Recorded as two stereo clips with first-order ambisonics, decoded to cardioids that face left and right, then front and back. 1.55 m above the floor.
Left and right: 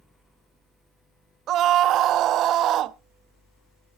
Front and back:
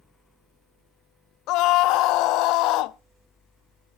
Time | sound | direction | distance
1.5 | a scream | 35° right | 0.6 m